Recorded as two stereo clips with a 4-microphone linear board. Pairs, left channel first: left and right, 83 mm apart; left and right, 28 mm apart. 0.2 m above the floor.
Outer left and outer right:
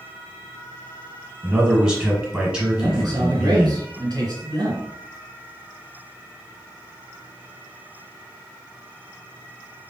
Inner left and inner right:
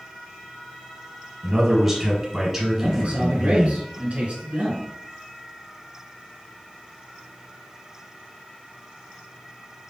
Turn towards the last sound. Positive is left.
turn(degrees=-45)  # may be behind; listen again after turning